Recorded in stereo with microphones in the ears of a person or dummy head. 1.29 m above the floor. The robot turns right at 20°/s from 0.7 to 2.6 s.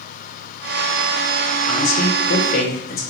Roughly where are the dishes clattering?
I don't hear dishes clattering.